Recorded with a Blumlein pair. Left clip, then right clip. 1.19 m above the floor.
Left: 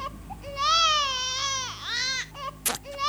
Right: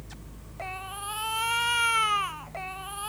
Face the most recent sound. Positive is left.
turn(degrees=30)